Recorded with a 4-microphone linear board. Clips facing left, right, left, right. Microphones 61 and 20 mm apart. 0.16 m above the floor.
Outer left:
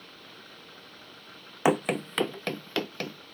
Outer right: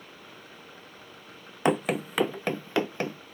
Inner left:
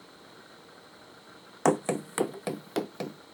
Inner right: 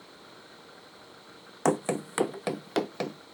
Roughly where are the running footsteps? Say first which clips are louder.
Even, inner left 1 dB; centre.